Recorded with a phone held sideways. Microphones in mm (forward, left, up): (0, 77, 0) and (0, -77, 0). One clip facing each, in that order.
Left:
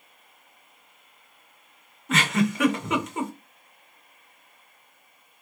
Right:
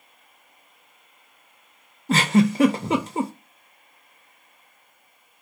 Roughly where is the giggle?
Right.